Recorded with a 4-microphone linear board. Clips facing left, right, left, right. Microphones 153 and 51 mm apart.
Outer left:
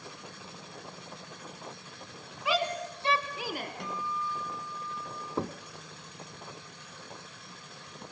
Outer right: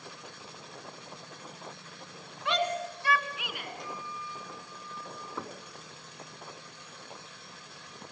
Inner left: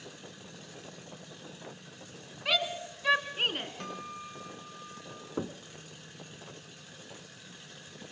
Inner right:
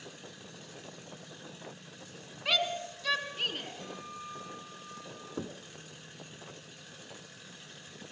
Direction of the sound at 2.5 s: Centre (ahead or behind).